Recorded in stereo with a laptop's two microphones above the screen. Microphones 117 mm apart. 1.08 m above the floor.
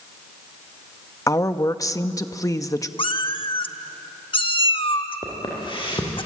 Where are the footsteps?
45° left (ahead or behind), 8.5 m.